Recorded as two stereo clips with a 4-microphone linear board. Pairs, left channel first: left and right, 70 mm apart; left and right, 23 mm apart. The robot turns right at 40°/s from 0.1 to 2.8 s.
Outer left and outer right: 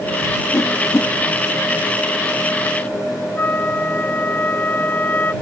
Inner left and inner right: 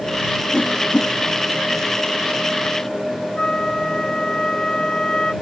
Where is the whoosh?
65° left (ahead or behind); by 1.1 s 45° left (ahead or behind).